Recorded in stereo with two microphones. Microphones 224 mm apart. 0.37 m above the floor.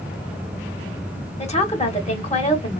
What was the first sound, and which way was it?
A woman speaking, 30° left (ahead or behind).